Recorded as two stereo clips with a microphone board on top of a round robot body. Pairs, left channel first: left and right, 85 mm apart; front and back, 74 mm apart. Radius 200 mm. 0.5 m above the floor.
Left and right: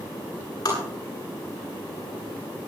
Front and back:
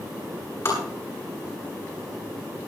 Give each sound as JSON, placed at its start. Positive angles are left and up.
{"t": 0.7, "sound": "tapping", "azimuth_deg": 50, "distance_m": 8.5}